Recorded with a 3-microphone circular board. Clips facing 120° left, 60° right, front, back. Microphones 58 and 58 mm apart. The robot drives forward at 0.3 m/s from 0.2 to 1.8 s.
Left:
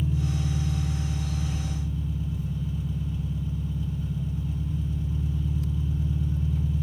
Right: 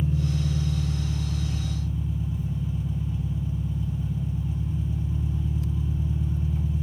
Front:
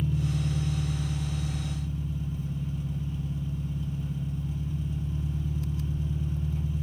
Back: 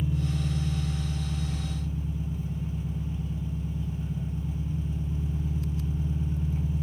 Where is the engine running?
110° right, 1.1 m; by 6.8 s 130° right, 1.4 m.